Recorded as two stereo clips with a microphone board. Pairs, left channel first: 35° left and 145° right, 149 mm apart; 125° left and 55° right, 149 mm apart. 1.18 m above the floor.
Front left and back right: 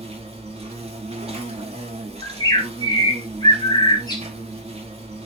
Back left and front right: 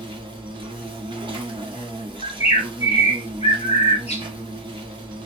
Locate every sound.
0.0 s an insect: 105° right, 0.9 m
2.2 s a bird: 90° left, 0.8 m